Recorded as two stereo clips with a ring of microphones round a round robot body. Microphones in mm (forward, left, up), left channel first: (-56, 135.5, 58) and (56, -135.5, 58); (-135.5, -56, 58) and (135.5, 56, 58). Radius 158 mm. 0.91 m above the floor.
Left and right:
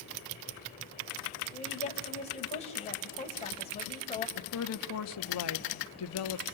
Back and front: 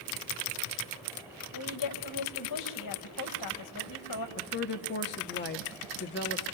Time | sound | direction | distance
1.5 | a woman speaking | straight behind | 4.5 m
4.4 | a woman speaking | 150° left | 1.4 m